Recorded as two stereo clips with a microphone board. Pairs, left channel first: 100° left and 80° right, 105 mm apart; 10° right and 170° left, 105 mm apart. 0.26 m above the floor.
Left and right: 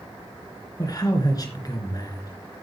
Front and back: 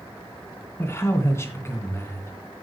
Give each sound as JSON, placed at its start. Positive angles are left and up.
{"t": 0.8, "sound": "a man speaking", "azimuth_deg": 50, "distance_m": 3.0}